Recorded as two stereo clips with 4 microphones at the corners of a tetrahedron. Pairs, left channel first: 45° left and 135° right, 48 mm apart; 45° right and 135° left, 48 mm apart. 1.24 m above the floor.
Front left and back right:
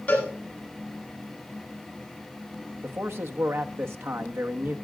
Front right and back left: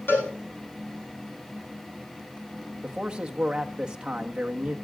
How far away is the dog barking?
No dog barking in this recording.